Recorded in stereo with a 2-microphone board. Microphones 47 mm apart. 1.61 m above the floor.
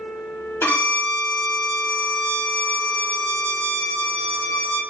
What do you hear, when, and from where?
0.6 s a violin: 60° left (ahead or behind), 1.2 m